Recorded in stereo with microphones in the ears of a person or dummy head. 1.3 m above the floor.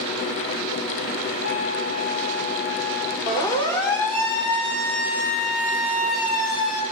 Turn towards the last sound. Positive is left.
turn(degrees=-20)  # may be behind; listen again after turning